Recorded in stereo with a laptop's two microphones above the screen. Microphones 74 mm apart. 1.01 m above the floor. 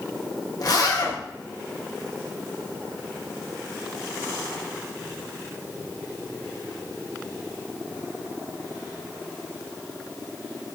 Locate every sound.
0.6 s a zipper: 55° left (ahead or behind), 0.5 m